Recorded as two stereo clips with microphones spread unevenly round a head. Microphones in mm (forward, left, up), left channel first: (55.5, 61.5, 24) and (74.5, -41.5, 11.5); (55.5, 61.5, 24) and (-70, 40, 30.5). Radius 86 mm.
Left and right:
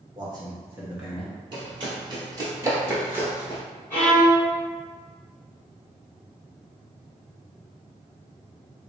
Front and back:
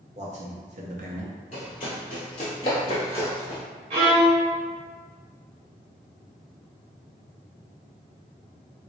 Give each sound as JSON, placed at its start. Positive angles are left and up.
{"t": 0.1, "sound": "a man speaking", "azimuth_deg": -130, "distance_m": 0.9}
{"t": 1.5, "sound": "running footsteps", "azimuth_deg": -45, "distance_m": 1.8}
{"t": 3.9, "sound": "a violin", "azimuth_deg": 175, "distance_m": 1.7}